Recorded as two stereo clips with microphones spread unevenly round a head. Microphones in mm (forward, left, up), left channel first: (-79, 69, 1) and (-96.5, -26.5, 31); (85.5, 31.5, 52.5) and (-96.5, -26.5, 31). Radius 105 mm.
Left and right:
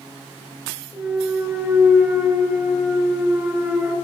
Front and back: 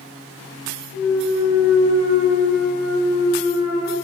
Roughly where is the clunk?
Behind.